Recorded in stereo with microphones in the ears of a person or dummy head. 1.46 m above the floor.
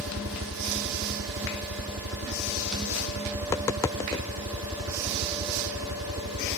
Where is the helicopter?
70° right (ahead or behind).